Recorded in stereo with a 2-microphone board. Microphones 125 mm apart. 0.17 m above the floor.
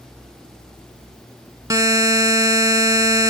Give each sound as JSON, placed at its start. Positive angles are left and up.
{"t": 1.7, "sound": "a buzzer", "side_deg": -30, "distance_m": 0.5}